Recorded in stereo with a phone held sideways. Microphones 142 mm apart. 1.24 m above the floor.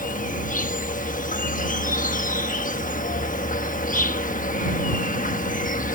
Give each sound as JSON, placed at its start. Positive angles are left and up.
{"t": 0.0, "sound": "an insect", "side_deg": 70}